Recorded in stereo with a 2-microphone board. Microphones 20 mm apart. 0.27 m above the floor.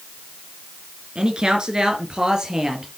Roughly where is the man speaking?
Right.